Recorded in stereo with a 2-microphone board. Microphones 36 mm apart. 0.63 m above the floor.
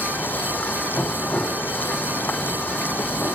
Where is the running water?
60° left (ahead or behind).